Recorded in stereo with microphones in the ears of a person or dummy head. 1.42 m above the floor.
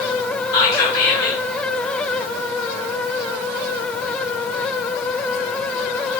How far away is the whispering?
About 1.8 m.